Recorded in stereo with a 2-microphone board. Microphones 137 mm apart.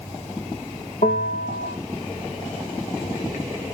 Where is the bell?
75° left (ahead or behind), 8.5 m.